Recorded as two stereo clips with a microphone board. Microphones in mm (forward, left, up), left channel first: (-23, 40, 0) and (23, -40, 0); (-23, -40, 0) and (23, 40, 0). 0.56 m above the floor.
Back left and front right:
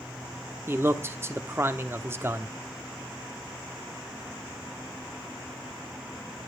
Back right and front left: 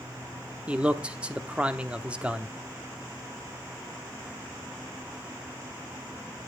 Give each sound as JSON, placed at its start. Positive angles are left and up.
{"t": 0.7, "sound": "a man speaking", "azimuth_deg": -10, "distance_m": 1.0}